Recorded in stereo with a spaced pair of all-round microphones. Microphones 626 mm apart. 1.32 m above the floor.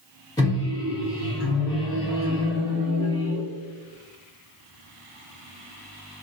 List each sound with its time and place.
0.4 s a microwave: 5° left (ahead or behind), 1.1 m